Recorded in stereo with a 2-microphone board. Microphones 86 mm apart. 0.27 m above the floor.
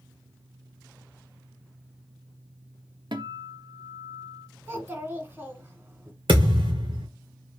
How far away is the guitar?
About 0.8 m.